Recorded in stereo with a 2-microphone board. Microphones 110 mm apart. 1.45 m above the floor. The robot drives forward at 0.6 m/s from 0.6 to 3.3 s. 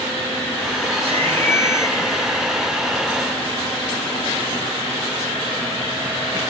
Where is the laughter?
65° right (ahead or behind), 9.5 m; by 2.5 s 70° right (ahead or behind), 9 m.